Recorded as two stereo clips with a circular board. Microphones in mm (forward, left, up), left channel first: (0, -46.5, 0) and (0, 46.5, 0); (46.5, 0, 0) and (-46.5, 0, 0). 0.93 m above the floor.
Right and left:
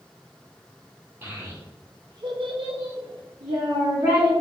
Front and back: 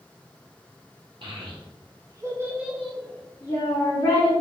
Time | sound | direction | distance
1.2 | a child speaking | 155° left | 0.9 m